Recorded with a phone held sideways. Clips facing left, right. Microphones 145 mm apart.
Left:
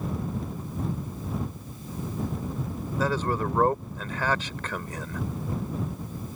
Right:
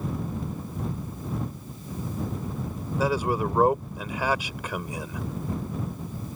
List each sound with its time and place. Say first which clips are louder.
3.0 s a man speaking: right 2 dB; 10° right (ahead or behind)